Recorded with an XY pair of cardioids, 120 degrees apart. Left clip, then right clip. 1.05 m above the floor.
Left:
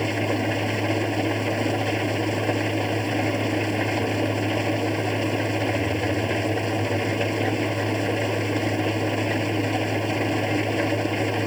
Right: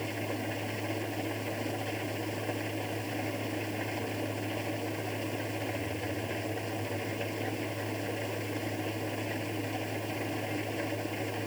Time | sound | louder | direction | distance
0.0 | an engine running | left 11 dB | 60° left | ?